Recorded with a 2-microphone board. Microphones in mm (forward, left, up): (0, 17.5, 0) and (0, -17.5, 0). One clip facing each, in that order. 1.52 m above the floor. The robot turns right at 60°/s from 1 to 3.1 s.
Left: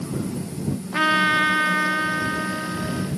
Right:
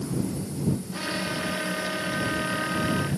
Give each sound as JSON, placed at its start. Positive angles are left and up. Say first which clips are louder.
{"t": 0.9, "sound": "a trumpet", "louder": "left 11 dB", "azimuth_deg": 80}